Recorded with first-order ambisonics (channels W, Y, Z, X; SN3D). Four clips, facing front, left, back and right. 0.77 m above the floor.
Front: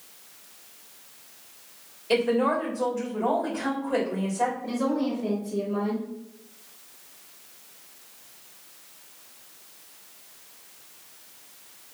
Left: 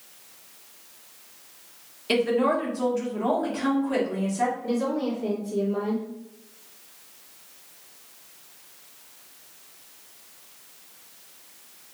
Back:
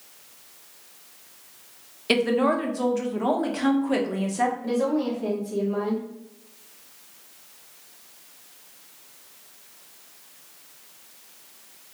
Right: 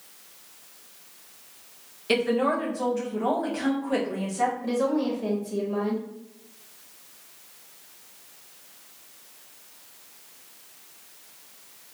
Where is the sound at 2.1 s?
Straight behind, 0.9 m.